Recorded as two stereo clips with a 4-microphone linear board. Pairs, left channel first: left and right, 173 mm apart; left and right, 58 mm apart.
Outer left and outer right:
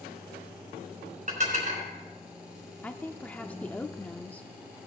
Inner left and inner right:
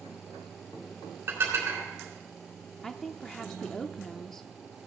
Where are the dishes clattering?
45° right (ahead or behind), 4 m.